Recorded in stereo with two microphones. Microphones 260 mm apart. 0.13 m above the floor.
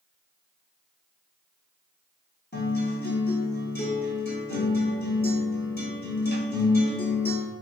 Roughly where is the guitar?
Left.